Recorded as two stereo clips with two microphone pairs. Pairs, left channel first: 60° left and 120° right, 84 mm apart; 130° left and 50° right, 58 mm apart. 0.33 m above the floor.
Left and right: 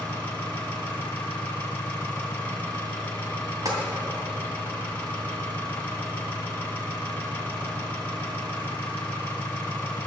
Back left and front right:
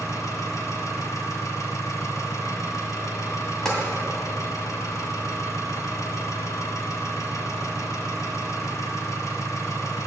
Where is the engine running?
130° left, 1.9 m.